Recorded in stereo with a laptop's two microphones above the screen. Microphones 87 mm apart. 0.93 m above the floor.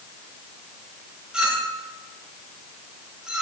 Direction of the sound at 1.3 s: 10° right (ahead or behind).